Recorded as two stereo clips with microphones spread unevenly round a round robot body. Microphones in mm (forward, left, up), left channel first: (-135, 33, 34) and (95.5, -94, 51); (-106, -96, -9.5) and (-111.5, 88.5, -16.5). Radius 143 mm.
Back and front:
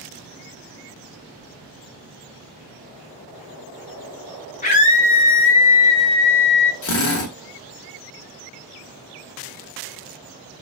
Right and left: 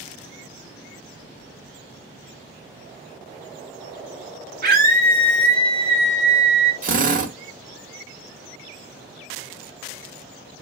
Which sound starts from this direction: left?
A scream, at 4.6 s.